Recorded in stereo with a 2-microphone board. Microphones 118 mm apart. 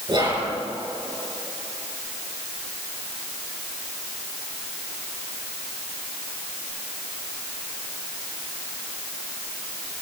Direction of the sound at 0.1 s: 40° right (ahead or behind).